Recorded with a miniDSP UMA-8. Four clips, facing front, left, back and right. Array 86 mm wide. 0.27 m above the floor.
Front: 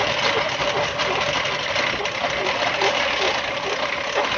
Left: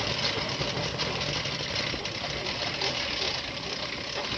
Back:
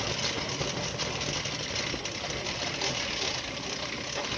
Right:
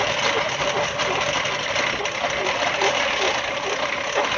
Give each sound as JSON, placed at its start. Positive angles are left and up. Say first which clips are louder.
{"t": 0.0, "sound": "a lawn mower", "louder": "right 10 dB, front 13 dB", "azimuth_deg": -45}